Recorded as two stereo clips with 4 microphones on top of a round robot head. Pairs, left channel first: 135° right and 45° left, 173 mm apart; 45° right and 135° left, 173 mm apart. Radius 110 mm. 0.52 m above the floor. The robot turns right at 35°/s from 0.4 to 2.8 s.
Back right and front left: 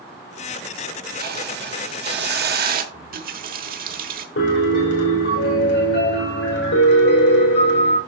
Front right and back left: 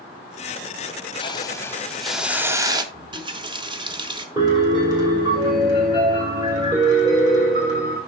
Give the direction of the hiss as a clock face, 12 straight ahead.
11 o'clock.